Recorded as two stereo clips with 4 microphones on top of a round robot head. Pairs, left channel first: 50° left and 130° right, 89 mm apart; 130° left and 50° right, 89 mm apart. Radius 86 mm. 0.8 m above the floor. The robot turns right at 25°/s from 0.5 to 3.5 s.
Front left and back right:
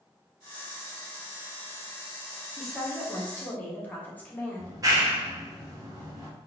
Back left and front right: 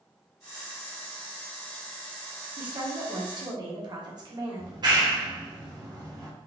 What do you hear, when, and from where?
2.6 s a woman speaking: 40° right, 1.1 m; by 4.8 s 15° right, 1.1 m
4.6 s a clap: 85° right, 1.1 m